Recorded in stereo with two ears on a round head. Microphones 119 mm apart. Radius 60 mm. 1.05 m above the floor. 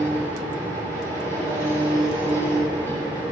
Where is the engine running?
20° left (ahead or behind), 3.5 m.